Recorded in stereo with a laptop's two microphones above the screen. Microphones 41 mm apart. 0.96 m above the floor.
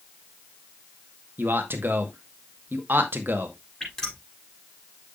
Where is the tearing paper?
I don't hear tearing paper.